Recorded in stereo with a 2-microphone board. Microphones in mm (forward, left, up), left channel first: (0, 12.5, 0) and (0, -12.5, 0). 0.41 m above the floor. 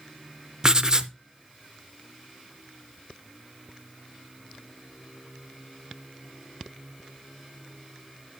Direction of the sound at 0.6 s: 30° right (ahead or behind).